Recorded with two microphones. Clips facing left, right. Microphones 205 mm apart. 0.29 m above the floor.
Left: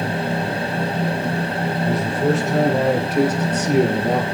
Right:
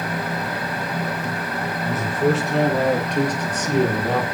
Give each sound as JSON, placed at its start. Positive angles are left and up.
{"t": 1.8, "sound": "a man speaking", "side_deg": -5, "distance_m": 6.0}